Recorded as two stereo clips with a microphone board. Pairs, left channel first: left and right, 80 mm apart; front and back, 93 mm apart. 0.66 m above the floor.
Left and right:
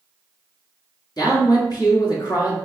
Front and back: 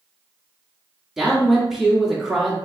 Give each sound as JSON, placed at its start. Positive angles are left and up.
{"t": 1.2, "sound": "a man speaking", "azimuth_deg": 95, "distance_m": 1.3}